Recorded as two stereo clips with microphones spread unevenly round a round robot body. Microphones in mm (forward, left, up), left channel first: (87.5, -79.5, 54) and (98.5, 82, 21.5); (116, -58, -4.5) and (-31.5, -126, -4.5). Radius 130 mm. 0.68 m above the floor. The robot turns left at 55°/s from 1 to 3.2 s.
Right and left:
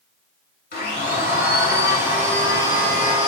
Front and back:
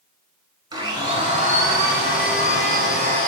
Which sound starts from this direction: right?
A blender, at 0.7 s.